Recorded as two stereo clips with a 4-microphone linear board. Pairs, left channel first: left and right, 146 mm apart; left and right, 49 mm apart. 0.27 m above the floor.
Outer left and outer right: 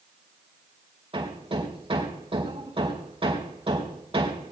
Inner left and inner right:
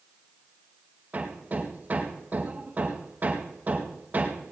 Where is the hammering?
35° right (ahead or behind), 4 m.